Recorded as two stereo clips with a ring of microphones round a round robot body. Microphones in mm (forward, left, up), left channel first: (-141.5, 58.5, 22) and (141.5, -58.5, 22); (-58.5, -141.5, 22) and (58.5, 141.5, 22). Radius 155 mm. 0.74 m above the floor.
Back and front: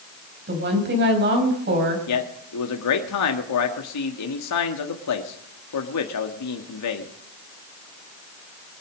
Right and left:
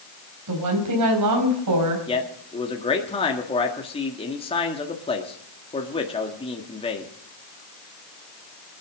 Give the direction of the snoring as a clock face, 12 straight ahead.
I don't hear snoring.